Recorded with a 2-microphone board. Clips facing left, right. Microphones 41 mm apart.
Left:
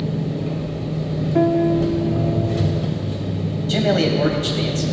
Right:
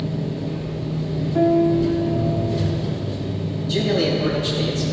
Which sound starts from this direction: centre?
A piano, at 1.4 s.